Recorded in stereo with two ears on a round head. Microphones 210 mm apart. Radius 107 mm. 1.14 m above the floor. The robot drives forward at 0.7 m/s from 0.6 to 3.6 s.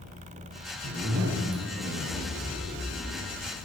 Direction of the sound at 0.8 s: 65° right (ahead or behind).